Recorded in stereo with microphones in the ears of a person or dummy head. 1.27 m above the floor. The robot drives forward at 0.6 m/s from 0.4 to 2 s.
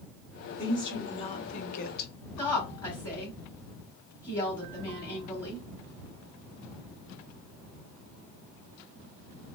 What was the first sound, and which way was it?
A woman speaking, 20° left (ahead or behind).